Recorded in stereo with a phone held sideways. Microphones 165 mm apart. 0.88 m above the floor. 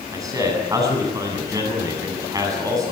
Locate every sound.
0.1 s a man speaking: 20° right (ahead or behind), 8 m